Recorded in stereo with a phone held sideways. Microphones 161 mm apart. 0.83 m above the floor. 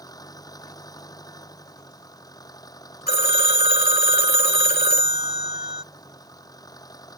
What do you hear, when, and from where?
0.0 s an engine running: 25° left (ahead or behind)
3.1 s a phone ringing: 75° left (ahead or behind)